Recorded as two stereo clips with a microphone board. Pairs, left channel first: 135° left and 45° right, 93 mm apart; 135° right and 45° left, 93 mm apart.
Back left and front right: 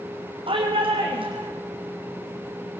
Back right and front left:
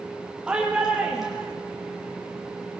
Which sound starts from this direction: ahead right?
A shout, at 0.5 s.